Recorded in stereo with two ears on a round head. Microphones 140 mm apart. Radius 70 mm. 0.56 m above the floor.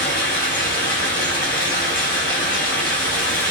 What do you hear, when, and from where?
0.0 s running water: 75° left (ahead or behind), 1.3 m